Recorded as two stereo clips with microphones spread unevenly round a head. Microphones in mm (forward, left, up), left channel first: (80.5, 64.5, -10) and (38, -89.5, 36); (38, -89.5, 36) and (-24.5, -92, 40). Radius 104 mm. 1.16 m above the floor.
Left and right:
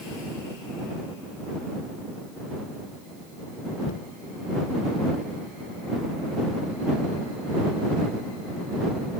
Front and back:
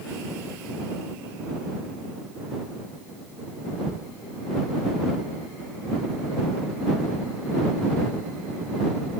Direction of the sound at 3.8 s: 70° left.